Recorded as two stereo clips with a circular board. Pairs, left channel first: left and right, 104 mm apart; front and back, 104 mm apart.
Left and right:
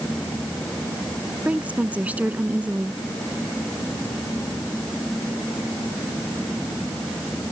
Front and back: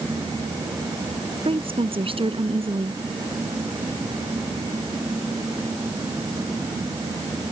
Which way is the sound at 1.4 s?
165° right.